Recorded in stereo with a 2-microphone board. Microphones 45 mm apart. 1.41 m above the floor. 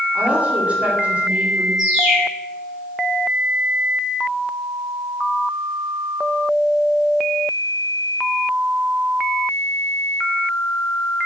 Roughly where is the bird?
Centre.